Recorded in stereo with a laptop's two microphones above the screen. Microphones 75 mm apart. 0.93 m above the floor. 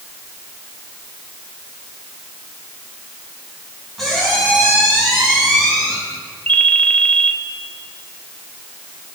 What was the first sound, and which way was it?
A squeak, 5° left (ahead or behind).